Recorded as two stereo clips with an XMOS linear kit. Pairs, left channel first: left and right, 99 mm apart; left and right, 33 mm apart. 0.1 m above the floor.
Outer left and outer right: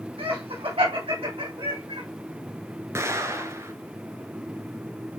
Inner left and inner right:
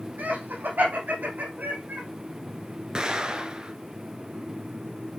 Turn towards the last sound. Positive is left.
turn(degrees=-30)  # may be behind; listen again after turning